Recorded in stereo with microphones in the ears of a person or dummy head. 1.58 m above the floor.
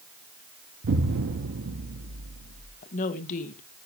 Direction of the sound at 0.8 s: 55° right (ahead or behind).